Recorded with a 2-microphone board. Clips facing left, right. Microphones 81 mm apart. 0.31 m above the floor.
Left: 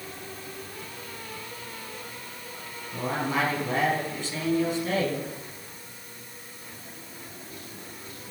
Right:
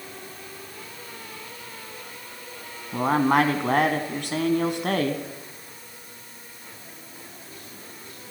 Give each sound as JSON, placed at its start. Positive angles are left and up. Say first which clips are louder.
{"t": 2.9, "sound": "a man speaking", "louder": "right 8 dB", "side_deg": -60, "distance_m": 3.5}